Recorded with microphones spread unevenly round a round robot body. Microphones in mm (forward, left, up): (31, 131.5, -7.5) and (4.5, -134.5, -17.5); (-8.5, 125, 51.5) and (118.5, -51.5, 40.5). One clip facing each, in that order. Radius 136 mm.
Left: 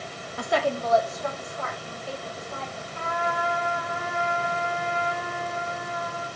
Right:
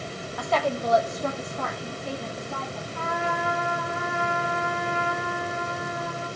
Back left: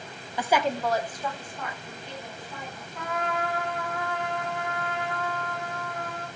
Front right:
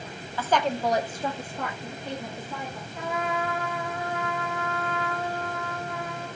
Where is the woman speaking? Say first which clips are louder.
Left 1 dB, even; 80° left, 0.9 m; by 2.9 s 85° right, 2.5 m.